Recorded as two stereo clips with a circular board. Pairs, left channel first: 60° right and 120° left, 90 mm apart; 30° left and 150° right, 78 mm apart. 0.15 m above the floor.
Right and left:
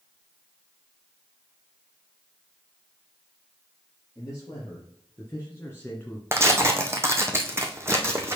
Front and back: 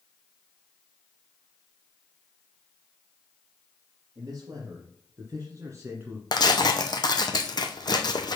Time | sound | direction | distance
4.2 | a man speaking | 120° right | 3.5 m
6.3 | tearing paper | 60° left | 1.4 m